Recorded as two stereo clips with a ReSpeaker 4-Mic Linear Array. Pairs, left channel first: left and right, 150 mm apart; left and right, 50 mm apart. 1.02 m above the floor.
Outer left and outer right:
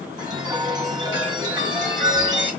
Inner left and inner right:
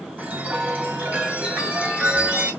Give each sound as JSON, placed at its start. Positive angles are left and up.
{"t": 0.2, "sound": "a chime", "side_deg": -30, "distance_m": 1.1}